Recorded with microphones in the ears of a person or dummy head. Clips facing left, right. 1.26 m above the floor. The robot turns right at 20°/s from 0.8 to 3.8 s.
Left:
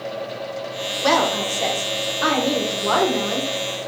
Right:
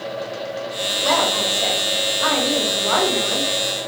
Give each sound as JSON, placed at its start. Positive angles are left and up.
{"t": 1.0, "sound": "a woman speaking", "azimuth_deg": 95, "distance_m": 1.2}